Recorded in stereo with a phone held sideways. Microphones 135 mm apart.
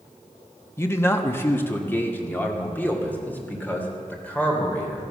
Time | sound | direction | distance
0.8 | a man speaking | 20° left (ahead or behind) | 1.0 m